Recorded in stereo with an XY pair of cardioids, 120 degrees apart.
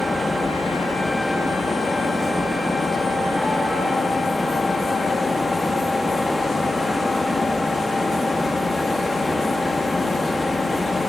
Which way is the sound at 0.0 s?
15° left.